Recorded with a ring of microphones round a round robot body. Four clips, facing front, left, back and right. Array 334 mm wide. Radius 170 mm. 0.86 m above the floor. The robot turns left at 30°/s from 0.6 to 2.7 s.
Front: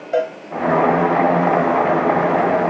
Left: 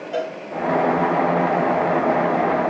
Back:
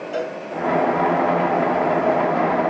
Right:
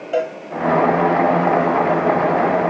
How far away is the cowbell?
About 2.5 m.